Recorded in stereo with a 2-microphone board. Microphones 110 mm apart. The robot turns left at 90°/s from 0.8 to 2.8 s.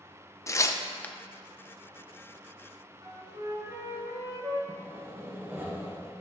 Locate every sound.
0.5 s tearing paper: 25° left (ahead or behind), 0.5 m; by 1.1 s 10° left (ahead or behind), 0.5 m
3.0 s a flute: 35° right (ahead or behind), 1.9 m
4.7 s sawing: 20° right (ahead or behind), 1.2 m